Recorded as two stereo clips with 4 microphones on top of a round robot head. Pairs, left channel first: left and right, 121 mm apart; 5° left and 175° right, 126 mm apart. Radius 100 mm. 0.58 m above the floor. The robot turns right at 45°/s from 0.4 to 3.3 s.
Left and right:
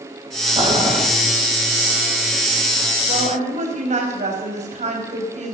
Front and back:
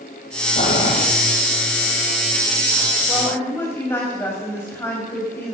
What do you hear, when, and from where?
0.6 s boiling: 50° right, 5.5 m; by 1.0 s 30° right, 5.5 m
3.1 s a woman speaking: 80° right, 4 m; by 5.5 s 70° right, 4 m